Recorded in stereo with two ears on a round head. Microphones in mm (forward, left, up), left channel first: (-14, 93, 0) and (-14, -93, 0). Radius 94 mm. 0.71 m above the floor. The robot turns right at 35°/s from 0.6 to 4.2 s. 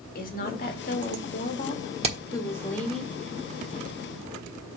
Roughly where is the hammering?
Right.